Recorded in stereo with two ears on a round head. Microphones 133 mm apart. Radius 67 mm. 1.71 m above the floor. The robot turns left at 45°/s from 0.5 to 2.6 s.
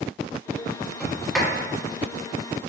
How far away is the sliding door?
About 1.3 m.